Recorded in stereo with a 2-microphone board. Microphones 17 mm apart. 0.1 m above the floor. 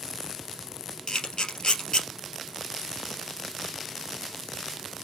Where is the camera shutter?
55° left (ahead or behind), 2 m.